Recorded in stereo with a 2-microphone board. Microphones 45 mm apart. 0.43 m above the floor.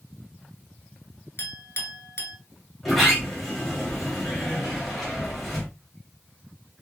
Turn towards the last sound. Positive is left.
turn(degrees=5)  # may be behind; listen again after turning